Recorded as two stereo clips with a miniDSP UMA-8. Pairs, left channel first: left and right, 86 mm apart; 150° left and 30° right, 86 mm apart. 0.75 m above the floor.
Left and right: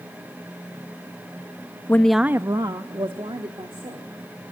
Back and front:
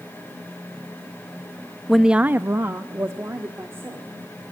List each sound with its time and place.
1.9 s a woman speaking: 65° left, 0.5 m; by 4.1 s 90° right, 2 m